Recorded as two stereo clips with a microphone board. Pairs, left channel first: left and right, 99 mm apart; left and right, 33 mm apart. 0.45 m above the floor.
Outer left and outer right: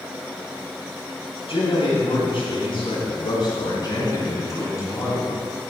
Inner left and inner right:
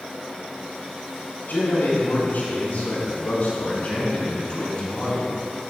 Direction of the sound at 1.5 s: 70° left (ahead or behind).